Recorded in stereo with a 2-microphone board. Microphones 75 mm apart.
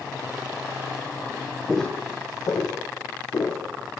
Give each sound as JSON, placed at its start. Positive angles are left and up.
{"t": 1.7, "sound": "footsteps", "side_deg": 0, "distance_m": 0.5}